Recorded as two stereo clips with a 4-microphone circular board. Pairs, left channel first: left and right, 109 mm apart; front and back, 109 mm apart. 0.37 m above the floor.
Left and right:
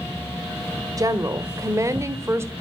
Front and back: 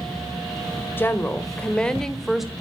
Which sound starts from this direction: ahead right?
A woman speaking, at 1.0 s.